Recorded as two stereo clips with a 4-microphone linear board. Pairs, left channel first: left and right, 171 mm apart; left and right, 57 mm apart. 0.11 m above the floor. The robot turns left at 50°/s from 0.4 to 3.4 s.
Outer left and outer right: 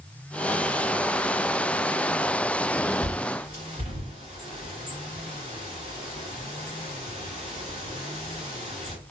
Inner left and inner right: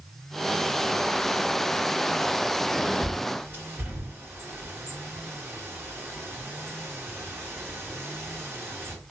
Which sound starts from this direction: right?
A bird, at 3.0 s.